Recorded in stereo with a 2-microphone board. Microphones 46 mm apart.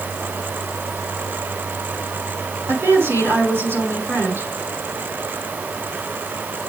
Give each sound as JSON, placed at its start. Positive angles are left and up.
{"t": 2.7, "sound": "a woman speaking", "side_deg": -60, "distance_m": 6.0}